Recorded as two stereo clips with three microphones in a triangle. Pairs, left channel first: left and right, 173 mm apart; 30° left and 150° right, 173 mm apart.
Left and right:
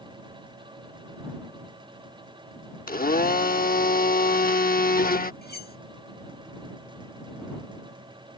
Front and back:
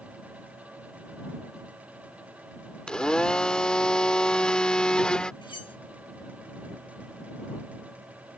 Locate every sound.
2.9 s a blender: 115° left
5.4 s cutlery clinking: 90° left